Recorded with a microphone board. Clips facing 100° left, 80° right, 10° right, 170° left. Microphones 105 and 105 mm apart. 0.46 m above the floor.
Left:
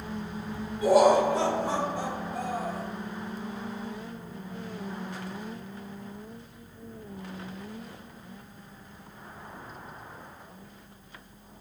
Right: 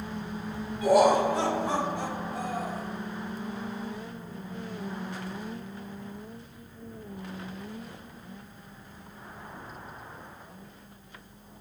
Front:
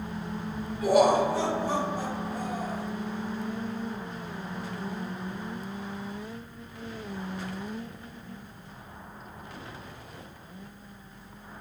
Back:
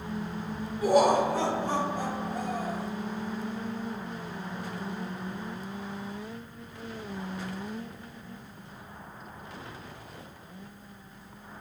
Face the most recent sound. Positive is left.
turn(degrees=155)